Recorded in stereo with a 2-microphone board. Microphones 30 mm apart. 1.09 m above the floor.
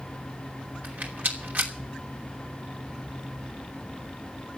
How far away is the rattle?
About 2.5 m.